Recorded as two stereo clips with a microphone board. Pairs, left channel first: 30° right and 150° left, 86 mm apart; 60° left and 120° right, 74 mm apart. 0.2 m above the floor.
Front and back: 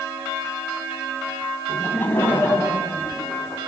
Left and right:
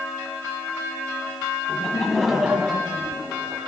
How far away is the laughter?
About 1.2 m.